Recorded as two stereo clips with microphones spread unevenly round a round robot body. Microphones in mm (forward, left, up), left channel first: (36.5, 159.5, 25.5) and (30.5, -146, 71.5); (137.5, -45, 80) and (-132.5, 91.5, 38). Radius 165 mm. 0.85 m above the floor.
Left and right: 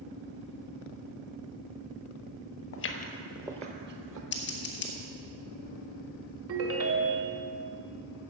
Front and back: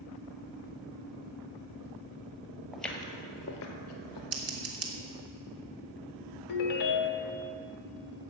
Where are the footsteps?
60° left, 1.1 m; by 4.2 s 55° right, 1.8 m.